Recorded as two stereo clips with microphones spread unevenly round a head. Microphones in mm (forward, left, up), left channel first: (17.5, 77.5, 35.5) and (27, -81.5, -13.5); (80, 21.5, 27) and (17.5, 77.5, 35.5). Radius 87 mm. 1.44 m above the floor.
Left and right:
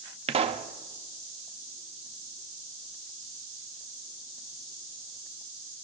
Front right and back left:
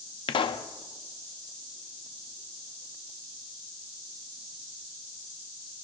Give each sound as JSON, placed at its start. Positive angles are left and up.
{"t": 0.3, "sound": "a pop", "azimuth_deg": -45, "distance_m": 0.6}